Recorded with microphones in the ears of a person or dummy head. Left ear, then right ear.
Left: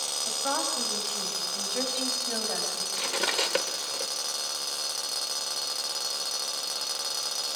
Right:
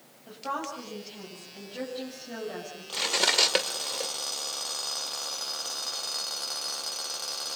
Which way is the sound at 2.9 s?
25° right (ahead or behind).